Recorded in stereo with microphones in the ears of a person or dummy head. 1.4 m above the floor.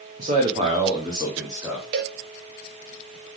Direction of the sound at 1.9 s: 40° right (ahead or behind).